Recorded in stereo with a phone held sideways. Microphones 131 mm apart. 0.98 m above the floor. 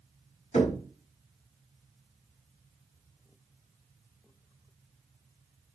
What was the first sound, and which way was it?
Knocking, 60° left (ahead or behind).